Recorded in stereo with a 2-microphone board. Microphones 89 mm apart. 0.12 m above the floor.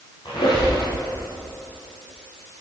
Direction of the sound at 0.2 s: 55° left (ahead or behind).